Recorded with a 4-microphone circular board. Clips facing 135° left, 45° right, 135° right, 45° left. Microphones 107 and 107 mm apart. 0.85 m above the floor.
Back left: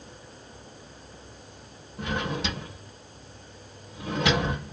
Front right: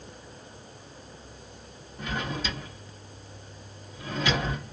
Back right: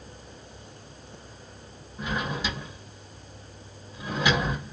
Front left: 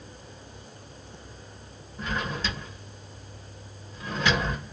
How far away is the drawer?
About 1.2 m.